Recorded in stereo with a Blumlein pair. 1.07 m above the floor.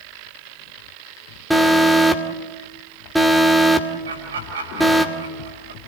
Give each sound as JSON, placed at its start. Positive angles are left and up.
{"t": 1.5, "sound": "an alarm", "azimuth_deg": 0, "distance_m": 1.8}
{"t": 4.0, "sound": "laughter", "azimuth_deg": -65, "distance_m": 5.5}